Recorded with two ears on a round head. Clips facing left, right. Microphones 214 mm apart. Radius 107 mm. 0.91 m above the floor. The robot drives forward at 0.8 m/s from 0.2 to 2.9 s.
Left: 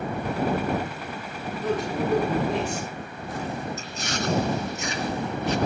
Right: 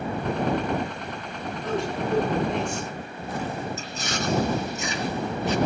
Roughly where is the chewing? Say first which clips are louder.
Even; right.